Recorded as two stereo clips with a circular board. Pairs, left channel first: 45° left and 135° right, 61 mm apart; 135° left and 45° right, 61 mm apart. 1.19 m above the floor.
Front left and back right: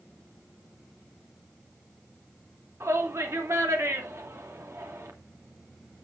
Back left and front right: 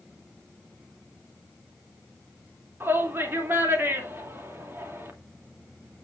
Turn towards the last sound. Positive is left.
turn(degrees=-95)